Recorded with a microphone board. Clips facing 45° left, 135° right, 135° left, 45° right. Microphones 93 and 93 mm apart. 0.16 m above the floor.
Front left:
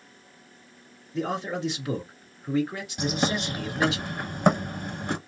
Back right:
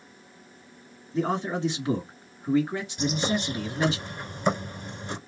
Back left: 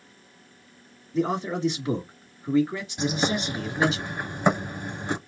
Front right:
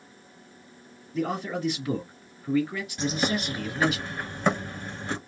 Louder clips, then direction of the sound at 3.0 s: Front left 1 dB, back left 2 dB; 65° left.